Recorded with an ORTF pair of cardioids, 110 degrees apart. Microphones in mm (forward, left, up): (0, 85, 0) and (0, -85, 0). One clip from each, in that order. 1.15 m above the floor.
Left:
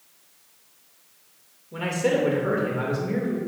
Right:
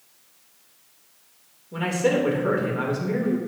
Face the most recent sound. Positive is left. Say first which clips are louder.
# right 1 dB
turn(degrees=-10)